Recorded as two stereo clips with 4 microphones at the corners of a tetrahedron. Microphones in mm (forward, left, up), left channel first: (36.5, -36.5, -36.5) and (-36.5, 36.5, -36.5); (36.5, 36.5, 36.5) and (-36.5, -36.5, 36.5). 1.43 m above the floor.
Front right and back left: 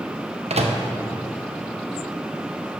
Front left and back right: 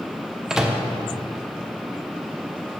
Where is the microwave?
140° left, 0.8 m.